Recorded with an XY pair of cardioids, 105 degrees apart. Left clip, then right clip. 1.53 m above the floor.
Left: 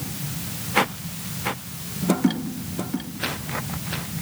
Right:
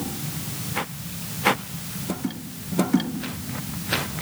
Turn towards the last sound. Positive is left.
No sound to turn to.